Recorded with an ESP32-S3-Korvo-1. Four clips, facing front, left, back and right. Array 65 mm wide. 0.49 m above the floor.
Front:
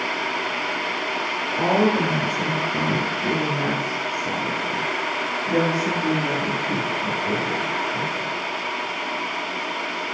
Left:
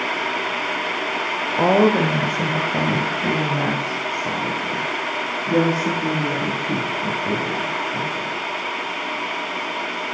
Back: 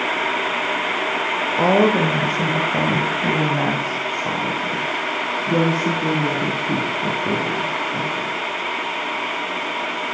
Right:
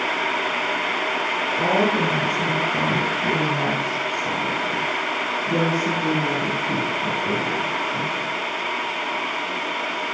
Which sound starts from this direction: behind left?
A woman speaking, at 1.6 s.